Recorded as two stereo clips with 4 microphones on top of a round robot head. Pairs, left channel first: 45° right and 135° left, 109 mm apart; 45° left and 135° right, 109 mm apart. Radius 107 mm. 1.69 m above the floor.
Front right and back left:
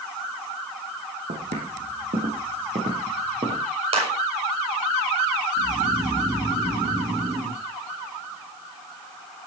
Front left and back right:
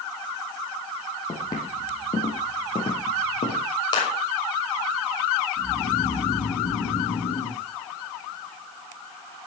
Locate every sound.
1.3 s footsteps: 110° left, 5 m; by 3.6 s 85° left, 4.5 m
3.9 s a clap: 100° left, 6 m
5.6 s snoring: 70° left, 9 m